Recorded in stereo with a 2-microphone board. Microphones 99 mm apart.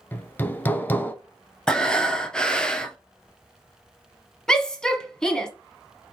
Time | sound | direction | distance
0.1 | hammering | 20° left (ahead or behind) | 0.5 m
1.7 | breathing | 10° left (ahead or behind) | 0.6 m
4.5 | a shout | 10° left (ahead or behind) | 1.0 m